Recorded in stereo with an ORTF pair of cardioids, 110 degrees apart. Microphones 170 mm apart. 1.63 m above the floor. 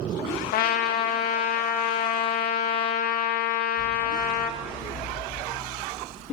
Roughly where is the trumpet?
Ahead left.